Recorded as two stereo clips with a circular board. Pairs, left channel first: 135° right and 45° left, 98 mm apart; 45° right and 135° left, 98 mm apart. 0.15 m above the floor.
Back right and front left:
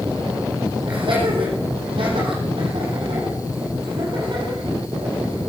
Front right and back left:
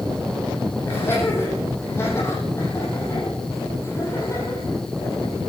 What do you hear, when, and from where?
0.8 s laughter: 20° left, 7.5 m; by 5.4 s 10° left, 5 m